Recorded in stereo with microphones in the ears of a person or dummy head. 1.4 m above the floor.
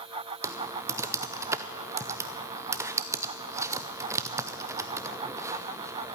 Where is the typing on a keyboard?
15° right (ahead or behind), 0.5 m.